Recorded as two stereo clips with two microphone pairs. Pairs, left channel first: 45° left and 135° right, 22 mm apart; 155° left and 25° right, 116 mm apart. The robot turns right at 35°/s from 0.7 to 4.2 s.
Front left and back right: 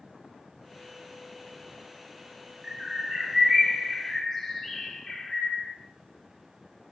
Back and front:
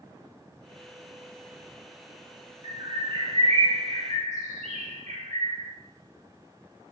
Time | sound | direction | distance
2.6 | a bird | 75° right | 1.0 m